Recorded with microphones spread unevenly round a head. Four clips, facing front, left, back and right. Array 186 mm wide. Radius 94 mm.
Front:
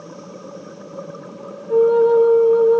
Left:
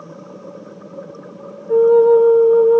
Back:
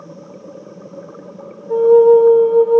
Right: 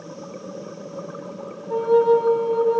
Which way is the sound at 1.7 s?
100° left.